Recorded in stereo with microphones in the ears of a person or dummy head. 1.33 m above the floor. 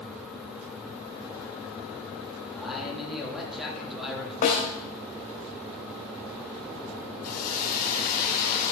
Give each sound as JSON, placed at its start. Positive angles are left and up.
{"t": 2.5, "sound": "a man speaking", "side_deg": 0, "distance_m": 3.0}
{"t": 4.4, "sound": "a snare drum", "side_deg": 45, "distance_m": 2.5}
{"t": 7.2, "sound": "a hiss", "side_deg": 50, "distance_m": 2.5}